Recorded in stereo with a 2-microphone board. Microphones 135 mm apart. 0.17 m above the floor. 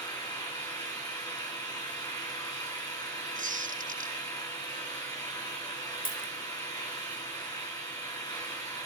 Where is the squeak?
65° right (ahead or behind), 3.5 m.